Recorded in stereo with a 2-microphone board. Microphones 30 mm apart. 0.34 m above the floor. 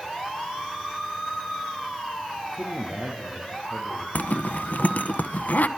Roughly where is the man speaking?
Right.